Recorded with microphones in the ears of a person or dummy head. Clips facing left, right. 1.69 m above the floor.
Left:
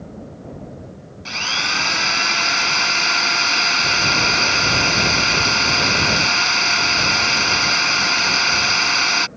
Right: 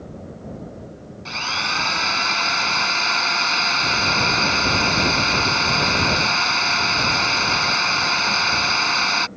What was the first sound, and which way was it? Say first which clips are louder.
A drill: left 1 dB; 20° left (ahead or behind).